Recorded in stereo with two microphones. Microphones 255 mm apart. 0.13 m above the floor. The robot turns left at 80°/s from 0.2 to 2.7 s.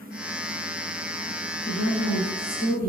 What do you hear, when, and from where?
1.6 s a woman speaking: 110° left, 1.7 m; by 2.9 s 25° left, 1.7 m